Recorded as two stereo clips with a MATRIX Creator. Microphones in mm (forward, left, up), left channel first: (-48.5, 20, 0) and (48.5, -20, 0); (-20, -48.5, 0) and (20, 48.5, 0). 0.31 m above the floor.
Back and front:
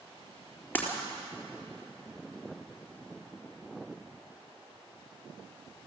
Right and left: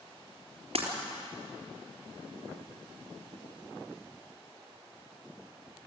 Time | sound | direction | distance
0.8 | breaking glass | 85° left | 4 m